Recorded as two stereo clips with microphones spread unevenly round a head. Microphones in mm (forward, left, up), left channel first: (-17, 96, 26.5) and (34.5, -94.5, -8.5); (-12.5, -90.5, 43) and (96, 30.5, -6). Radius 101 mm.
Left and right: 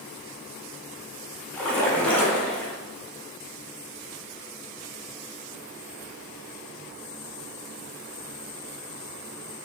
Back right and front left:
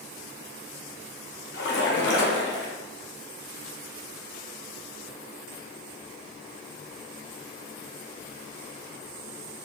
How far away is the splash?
About 0.6 m.